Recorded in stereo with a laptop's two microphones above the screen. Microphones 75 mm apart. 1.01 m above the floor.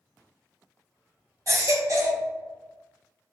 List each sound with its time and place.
1.5 s a baby crying: 50° right (ahead or behind), 0.9 m